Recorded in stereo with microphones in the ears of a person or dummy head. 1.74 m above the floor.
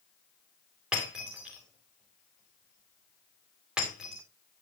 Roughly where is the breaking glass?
Centre.